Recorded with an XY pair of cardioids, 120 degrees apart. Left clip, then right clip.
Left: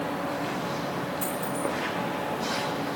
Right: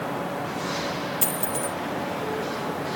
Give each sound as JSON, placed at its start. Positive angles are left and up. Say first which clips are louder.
{"t": 1.2, "sound": "a dropped coin", "louder": "right 1 dB", "azimuth_deg": -65, "distance_m": 1.7}